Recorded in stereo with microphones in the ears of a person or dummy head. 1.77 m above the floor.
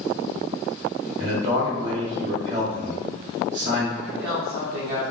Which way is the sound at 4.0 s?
60° right (ahead or behind).